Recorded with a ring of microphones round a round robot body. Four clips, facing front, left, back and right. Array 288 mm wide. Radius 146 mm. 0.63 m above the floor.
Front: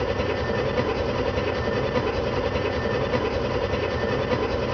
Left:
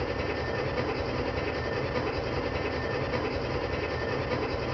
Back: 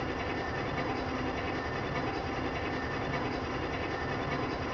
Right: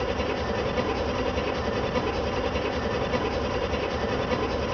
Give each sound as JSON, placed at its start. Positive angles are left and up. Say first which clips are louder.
{"t": 0.0, "sound": "an engine running", "louder": "right 4 dB, front 9 dB", "azimuth_deg": -10, "distance_m": 1.2}